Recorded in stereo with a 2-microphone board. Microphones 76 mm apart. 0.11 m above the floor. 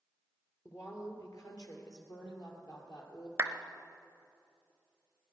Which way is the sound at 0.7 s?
45° left (ahead or behind).